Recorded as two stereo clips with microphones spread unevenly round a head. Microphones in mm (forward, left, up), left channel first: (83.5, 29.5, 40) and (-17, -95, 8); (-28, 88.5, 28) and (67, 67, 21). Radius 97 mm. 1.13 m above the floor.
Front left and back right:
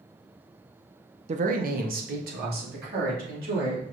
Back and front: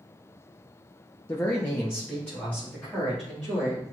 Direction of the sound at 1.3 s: 125° right.